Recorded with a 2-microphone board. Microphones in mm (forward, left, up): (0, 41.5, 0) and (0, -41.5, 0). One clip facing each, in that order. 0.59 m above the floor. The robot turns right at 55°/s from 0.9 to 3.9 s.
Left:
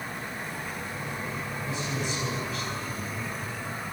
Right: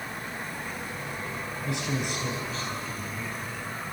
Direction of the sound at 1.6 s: 85° right.